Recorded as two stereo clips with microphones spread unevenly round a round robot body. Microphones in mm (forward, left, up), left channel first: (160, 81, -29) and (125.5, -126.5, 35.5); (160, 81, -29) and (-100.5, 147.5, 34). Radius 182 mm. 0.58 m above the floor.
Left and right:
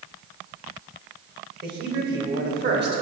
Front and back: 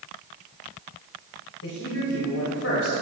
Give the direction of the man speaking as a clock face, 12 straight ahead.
2 o'clock.